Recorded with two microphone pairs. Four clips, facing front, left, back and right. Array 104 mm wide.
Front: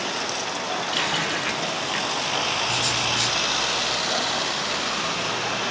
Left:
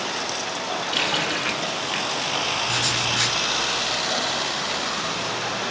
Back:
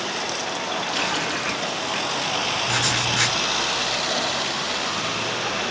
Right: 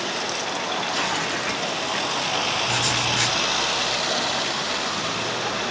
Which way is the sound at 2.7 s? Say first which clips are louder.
Right 2 dB, back 2 dB; 175° left.